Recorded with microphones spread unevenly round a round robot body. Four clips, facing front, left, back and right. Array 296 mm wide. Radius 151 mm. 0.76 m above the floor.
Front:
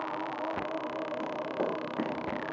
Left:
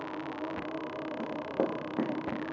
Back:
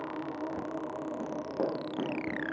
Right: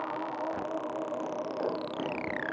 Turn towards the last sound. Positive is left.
turn(degrees=80)